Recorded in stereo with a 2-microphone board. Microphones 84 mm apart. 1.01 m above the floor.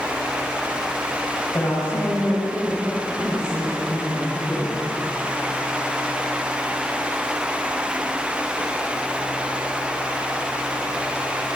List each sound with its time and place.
1.5 s a woman speaking: 30° left (ahead or behind), 4.5 m